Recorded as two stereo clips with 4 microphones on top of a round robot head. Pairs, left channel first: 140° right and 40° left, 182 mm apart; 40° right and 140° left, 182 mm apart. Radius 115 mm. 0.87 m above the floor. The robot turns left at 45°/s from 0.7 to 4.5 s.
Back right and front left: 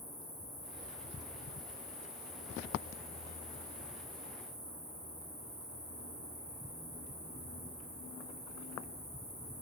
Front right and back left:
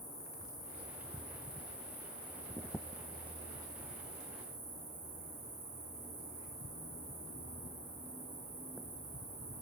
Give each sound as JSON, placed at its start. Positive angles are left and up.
{"t": 0.0, "sound": "an insect", "azimuth_deg": -75, "distance_m": 1.5}